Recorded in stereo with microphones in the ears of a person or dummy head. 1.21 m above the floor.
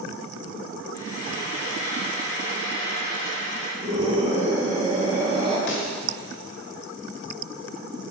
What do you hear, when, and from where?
0.9 s frying: 25° left (ahead or behind), 1.9 m
3.8 s a scream: 25° right (ahead or behind), 2.5 m
5.7 s a pop: 65° left (ahead or behind), 1.8 m